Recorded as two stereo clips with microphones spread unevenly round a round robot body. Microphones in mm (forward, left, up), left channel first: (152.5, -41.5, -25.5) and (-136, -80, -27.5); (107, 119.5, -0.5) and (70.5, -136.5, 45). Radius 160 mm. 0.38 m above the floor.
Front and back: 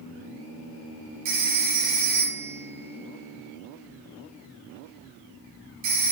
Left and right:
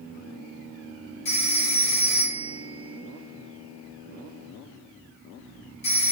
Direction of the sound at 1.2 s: 150° left.